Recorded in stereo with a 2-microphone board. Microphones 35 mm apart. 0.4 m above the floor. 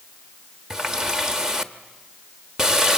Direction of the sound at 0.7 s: 15° right (ahead or behind).